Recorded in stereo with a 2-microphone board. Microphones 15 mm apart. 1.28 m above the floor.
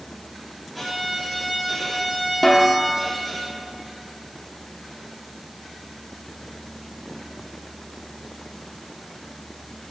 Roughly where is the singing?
I don't hear singing.